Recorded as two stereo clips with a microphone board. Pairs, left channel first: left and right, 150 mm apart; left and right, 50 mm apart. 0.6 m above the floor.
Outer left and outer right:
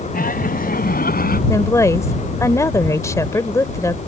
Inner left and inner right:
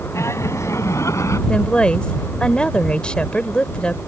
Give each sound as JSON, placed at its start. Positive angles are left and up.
{"t": 0.1, "sound": "laughter", "side_deg": 75}
{"t": 1.5, "sound": "a woman speaking", "side_deg": 20}